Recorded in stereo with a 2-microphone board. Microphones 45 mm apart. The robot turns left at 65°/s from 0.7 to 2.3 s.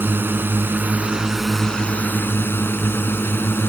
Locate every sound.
0.0 s a drone: 135° right; by 3.7 s 125° left